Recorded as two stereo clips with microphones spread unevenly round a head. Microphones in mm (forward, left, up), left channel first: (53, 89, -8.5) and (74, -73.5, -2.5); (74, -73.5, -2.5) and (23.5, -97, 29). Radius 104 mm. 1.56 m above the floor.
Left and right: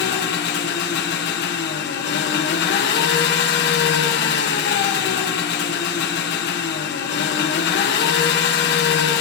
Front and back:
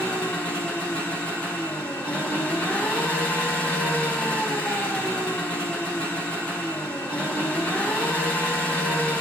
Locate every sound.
0.0 s an engine running: 120° left, 1.2 m